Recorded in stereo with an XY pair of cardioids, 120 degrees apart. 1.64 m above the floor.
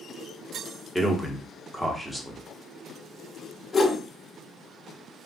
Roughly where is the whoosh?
Ahead left.